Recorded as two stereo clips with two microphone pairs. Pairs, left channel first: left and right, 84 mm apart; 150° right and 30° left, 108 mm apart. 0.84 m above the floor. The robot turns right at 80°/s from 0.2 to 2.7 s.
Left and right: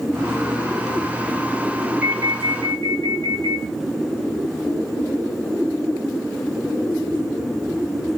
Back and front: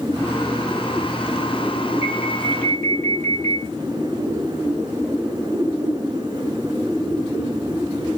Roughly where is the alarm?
Behind.